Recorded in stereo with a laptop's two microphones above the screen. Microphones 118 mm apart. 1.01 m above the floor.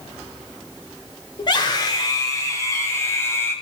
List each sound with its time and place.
1.4 s a scream: 40° left (ahead or behind), 4 m; by 3.5 s 20° left (ahead or behind), 6.5 m